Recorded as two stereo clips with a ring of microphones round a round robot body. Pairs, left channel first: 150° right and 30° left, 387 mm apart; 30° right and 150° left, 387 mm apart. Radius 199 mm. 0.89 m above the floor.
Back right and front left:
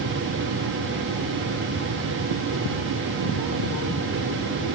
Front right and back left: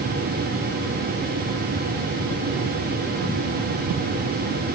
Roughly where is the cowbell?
I don't hear a cowbell.